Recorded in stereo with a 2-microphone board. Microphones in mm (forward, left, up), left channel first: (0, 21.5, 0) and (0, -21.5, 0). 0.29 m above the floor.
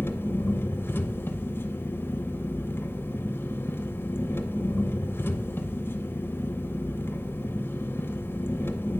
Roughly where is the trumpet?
I don't hear a trumpet.